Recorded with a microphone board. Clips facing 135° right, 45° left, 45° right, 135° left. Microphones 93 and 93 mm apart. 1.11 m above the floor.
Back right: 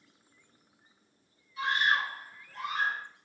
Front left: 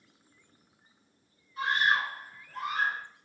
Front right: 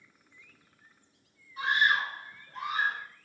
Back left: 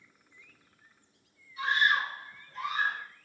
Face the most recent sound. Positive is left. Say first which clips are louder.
# front left 1 dB, even
turn(degrees=-5)